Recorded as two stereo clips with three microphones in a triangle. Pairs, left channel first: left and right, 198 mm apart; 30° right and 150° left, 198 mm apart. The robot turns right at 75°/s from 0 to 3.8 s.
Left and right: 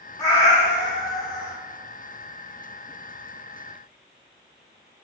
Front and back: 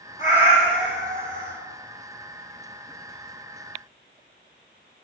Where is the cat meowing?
15° left, 1.0 m; by 1.5 s 115° left, 1.0 m.